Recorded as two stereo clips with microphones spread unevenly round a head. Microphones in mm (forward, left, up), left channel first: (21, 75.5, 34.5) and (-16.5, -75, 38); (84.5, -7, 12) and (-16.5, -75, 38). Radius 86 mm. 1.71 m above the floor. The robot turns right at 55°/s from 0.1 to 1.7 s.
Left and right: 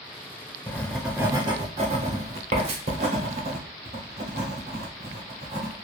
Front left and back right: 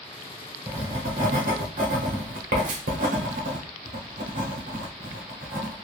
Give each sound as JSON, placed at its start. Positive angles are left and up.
{"t": 0.7, "sound": "writing", "azimuth_deg": 150, "distance_m": 0.7}